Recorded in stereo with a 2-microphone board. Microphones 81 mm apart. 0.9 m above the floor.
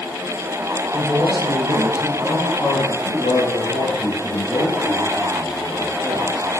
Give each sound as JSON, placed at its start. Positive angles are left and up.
{"t": 0.9, "sound": "a man speaking", "side_deg": 60, "distance_m": 6.0}